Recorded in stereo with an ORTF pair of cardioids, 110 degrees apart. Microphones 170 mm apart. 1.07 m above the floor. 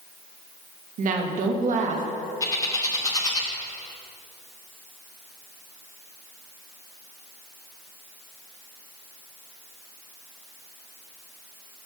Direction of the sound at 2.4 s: 20° left.